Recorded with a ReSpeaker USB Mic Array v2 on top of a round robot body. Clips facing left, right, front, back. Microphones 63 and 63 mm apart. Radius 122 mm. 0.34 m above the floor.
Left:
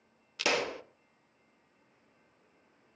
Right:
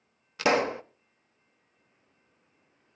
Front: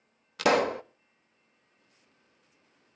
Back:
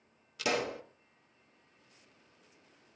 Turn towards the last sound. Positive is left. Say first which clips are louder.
# right 7 dB, front 9 dB
turn(degrees=-35)